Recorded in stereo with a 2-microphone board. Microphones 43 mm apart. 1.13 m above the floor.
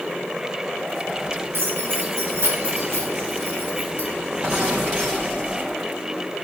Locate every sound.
1.5 s keys jangling: 75° right (ahead or behind), 5 m; by 4.1 s 85° right, 5 m